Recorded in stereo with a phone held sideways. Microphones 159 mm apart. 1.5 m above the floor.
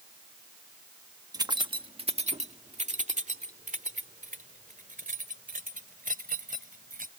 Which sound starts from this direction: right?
Keys jangling, at 1.3 s.